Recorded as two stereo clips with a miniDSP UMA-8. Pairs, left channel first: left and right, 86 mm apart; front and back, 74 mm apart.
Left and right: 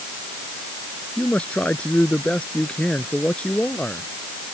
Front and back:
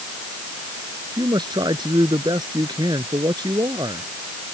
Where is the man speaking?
165° left.